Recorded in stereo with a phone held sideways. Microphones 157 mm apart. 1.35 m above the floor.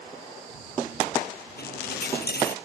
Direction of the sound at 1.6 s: 70° left (ahead or behind).